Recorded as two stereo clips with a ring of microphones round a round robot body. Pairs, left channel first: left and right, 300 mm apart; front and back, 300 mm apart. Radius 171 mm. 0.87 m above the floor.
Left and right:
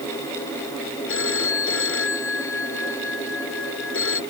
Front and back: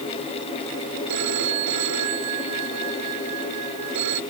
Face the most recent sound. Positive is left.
turn(degrees=140)